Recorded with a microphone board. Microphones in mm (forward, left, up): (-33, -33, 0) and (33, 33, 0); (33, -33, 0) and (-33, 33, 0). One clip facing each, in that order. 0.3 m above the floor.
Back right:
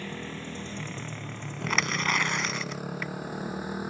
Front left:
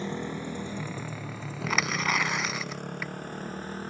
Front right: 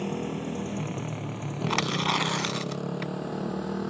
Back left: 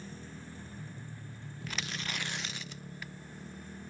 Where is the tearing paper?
45° right.